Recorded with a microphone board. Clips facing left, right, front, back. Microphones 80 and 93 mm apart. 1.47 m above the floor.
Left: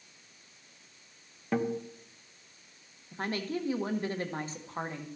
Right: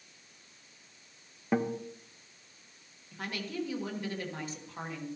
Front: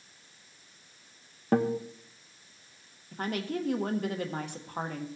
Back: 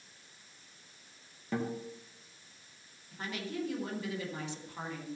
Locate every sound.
1.5 s a guitar: 15° right, 0.9 m
3.1 s a woman speaking: 35° left, 1.2 m